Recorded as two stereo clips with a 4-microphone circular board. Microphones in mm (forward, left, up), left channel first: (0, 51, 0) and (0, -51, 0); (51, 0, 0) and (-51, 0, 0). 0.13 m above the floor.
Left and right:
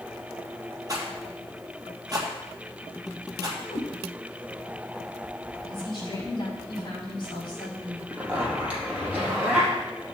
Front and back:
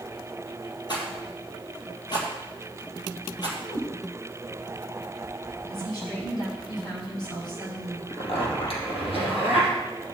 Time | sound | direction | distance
0.9 | a rattle | 40° right | 3 m
3.7 | a cat meowing | 60° left | 4 m
5.7 | a woman speaking | 45° left | 6.5 m
8.1 | a zipper | 10° right | 4 m